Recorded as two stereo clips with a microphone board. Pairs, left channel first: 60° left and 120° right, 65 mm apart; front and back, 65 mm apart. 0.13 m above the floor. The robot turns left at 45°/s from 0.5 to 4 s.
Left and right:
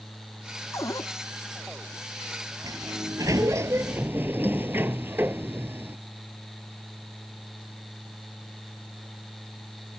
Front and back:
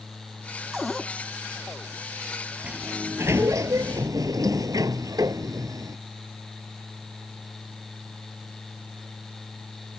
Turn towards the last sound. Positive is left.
turn(degrees=-175)